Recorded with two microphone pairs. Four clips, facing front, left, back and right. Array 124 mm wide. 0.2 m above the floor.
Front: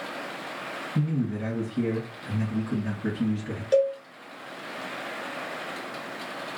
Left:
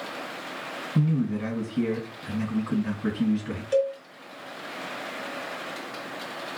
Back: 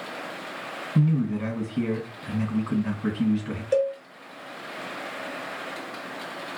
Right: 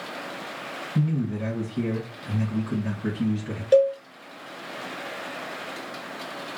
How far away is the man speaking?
About 2.0 m.